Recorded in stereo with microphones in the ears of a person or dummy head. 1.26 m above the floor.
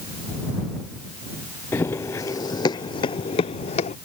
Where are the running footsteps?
20° left (ahead or behind); by 4.0 s 45° left (ahead or behind).